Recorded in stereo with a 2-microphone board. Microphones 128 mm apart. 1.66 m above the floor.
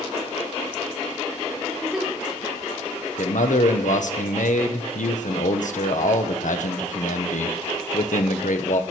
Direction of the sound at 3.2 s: 80° left.